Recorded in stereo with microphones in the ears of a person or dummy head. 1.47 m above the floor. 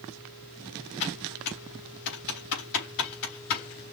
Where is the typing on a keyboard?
55° left (ahead or behind), 3.5 m.